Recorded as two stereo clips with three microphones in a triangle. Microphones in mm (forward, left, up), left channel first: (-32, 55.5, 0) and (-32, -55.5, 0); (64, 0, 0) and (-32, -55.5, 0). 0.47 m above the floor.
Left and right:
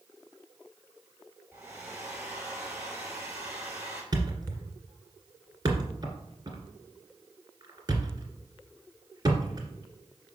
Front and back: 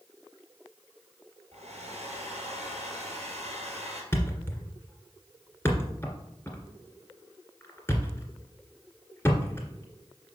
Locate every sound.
1.5 s a hair dryer: 165° right, 3.5 m
4.1 s a thud: 40° right, 2.0 m